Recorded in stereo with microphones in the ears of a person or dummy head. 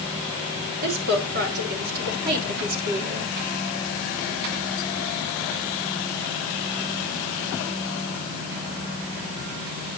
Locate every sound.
0.8 s a woman speaking: 55° right (ahead or behind), 4 m; by 3.3 s 45° right (ahead or behind), 3 m